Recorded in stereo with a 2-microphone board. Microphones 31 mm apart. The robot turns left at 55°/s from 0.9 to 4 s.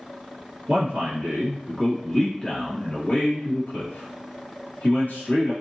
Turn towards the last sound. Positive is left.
turn(degrees=80)